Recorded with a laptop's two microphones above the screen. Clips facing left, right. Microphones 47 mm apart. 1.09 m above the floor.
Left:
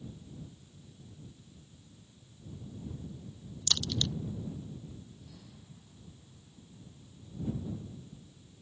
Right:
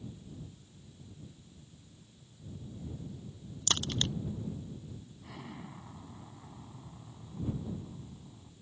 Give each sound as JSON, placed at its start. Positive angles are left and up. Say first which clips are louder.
{"t": 3.7, "sound": "a crack", "louder": "even", "side_deg": -40}
{"t": 5.2, "sound": "an explosion", "louder": "right 8 dB", "side_deg": -80}